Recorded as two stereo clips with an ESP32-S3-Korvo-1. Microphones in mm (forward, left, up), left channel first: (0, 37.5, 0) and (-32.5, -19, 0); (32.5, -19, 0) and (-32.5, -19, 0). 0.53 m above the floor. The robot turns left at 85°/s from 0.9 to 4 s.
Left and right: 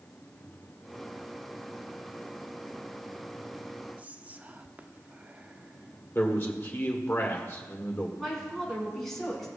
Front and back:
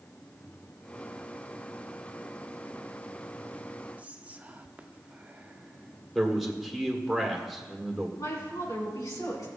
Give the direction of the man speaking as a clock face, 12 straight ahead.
9 o'clock.